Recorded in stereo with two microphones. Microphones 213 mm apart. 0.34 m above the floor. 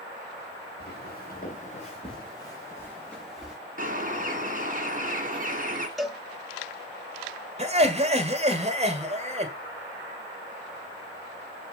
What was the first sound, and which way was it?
Footsteps, 55° left (ahead or behind).